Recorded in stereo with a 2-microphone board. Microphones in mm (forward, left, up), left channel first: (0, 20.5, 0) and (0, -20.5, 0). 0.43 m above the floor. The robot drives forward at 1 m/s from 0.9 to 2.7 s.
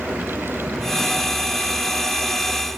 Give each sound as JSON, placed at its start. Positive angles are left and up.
{"t": 0.0, "sound": "a vehicle", "side_deg": -20}